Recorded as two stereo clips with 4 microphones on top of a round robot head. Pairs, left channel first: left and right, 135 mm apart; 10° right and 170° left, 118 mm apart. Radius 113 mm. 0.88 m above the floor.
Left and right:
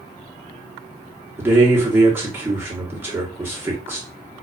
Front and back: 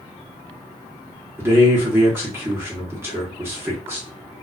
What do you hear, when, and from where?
1.4 s a man speaking: 145° right, 1.0 m